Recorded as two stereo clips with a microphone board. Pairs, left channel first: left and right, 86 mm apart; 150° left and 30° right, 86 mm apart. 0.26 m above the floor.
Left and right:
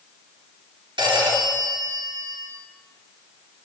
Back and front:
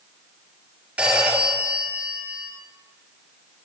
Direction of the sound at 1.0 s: 105° right.